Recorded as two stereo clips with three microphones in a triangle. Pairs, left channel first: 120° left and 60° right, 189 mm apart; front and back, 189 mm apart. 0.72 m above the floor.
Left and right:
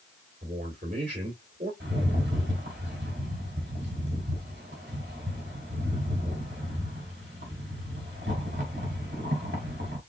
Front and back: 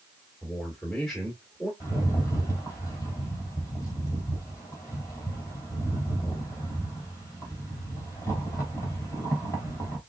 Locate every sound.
0.4 s a man speaking: 90° right, 1.9 m
1.8 s a rattle: 75° right, 2.5 m